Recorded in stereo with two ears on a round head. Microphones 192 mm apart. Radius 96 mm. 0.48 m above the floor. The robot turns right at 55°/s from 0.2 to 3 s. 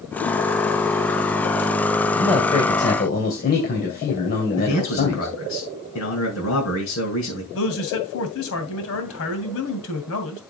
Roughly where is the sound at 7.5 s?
Left.